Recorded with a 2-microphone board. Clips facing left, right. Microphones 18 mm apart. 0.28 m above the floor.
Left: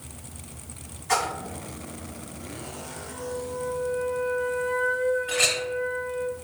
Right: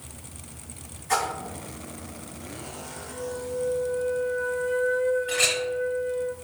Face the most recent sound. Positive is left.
turn(degrees=0)  # may be behind; listen again after turning